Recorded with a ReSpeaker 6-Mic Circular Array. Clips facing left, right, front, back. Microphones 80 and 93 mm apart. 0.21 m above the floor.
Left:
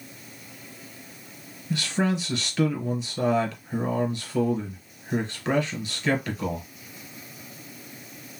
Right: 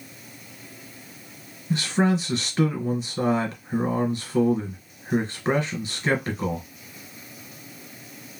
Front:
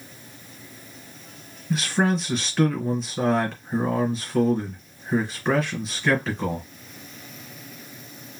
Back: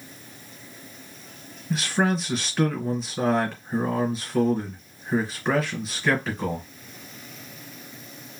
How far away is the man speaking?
About 1.4 m.